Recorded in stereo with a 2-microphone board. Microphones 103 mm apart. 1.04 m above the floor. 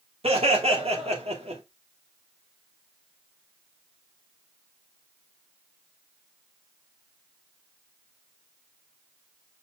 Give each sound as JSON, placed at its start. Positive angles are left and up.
{"t": 0.2, "sound": "laughter", "side_deg": -75, "distance_m": 2.5}